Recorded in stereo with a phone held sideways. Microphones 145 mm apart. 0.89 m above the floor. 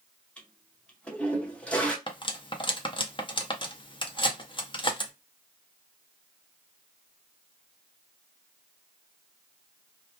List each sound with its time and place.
0.4 s a toilet flushing: 10° left (ahead or behind), 0.7 m
2.1 s cutlery clinking: 35° left (ahead or behind), 0.6 m